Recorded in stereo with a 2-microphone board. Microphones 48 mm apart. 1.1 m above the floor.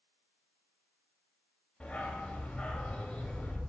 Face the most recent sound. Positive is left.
turn(degrees=25)  # may be behind; listen again after turning